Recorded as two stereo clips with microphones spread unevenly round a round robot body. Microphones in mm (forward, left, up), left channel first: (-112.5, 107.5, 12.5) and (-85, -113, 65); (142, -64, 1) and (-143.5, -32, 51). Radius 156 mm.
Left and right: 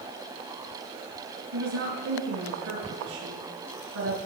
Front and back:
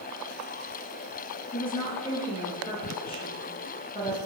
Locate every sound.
1.5 s a woman speaking: 75° right, 5.5 m